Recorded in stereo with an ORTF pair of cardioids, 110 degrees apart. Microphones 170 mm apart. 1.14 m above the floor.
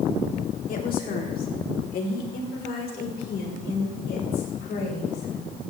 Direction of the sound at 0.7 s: 55° left.